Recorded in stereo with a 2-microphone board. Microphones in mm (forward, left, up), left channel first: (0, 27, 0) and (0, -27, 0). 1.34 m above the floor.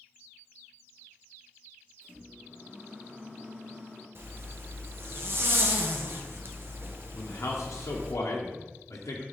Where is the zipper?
50° right (ahead or behind), 0.6 m.